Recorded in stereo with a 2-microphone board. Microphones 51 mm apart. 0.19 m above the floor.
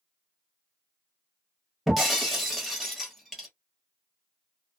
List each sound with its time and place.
1.9 s breaking glass: 5° right (ahead or behind), 1.1 m